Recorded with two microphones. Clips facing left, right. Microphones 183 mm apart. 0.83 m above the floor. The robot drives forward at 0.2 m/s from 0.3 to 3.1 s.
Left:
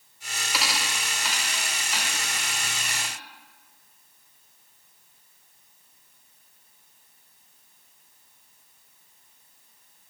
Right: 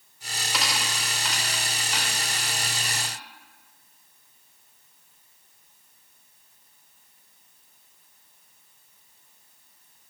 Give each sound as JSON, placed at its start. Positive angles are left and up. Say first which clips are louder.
{"t": 0.5, "sound": "a dropped coin", "louder": "even", "side_deg": 5, "distance_m": 0.6}